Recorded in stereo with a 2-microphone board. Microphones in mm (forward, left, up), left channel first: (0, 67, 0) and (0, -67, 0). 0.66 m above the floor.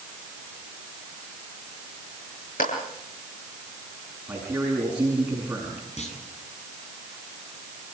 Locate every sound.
2.6 s a clap: 85° left, 9 m
4.3 s a man speaking: 10° right (ahead or behind), 6 m
6.0 s a clunk: 55° left (ahead or behind), 7 m